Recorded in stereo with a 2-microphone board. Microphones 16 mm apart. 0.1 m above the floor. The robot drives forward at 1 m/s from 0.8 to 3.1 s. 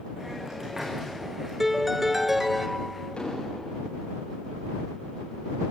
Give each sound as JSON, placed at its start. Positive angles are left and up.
{"t": 0.2, "sound": "a hiss", "side_deg": -30, "distance_m": 8.0}
{"t": 1.6, "sound": "a piano", "side_deg": -15, "distance_m": 1.0}
{"t": 3.2, "sound": "an explosion", "side_deg": 85, "distance_m": 7.0}